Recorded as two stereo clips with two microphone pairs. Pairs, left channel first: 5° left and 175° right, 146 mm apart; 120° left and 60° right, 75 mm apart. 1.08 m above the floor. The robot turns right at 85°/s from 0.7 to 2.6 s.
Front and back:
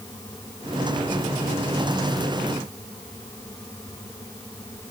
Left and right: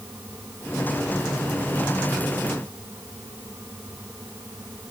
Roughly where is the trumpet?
No trumpet in this recording.